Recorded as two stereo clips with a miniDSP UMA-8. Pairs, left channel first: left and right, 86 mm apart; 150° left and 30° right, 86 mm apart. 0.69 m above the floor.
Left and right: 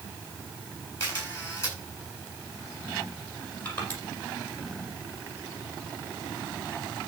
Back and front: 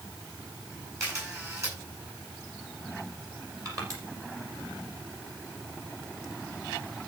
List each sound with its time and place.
1.0 s a camera shutter: 25° left, 8.5 m
3.6 s crushing: 20° left, 6 m